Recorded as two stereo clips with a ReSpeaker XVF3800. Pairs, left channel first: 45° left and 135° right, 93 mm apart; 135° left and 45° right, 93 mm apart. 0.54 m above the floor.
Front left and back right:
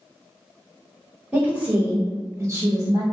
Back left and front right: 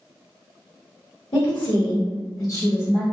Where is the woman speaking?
150° left, 2.0 m; by 3.0 s 160° right, 1.2 m.